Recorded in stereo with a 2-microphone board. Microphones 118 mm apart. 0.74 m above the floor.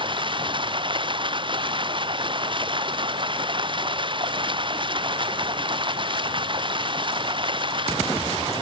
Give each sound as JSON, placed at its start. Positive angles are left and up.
{"t": 0.0, "sound": "running water", "side_deg": -45}